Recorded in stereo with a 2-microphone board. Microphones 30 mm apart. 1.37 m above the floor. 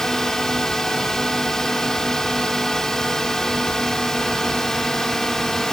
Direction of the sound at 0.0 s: 15° left (ahead or behind).